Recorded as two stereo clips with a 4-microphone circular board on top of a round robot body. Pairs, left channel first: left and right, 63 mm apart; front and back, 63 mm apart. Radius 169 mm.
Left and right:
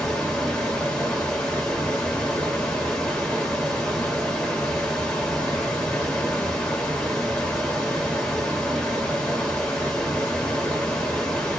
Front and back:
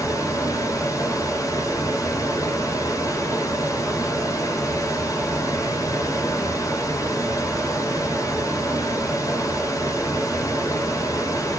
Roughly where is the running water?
Ahead.